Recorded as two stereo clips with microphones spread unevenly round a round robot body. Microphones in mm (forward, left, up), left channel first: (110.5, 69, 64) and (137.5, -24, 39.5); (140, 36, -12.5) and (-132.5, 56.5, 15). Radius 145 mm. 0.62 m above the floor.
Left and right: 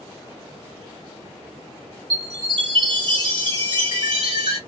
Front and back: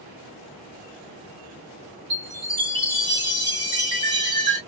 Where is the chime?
105° right, 1.7 m.